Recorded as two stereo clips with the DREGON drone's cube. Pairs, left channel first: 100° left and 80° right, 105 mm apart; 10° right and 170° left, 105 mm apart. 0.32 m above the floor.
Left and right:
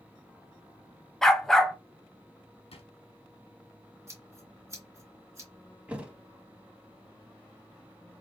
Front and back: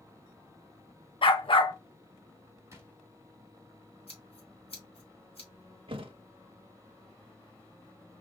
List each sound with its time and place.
1.2 s a dog barking: 15° left, 0.5 m
2.7 s a drawer: 110° left, 0.8 m
4.1 s scissors: 20° right, 1.4 m
5.9 s a thud: 155° right, 0.6 m